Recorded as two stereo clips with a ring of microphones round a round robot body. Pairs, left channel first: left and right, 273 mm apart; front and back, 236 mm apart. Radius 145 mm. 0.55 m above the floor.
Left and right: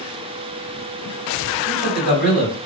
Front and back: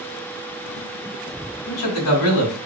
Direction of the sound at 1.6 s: Straight ahead.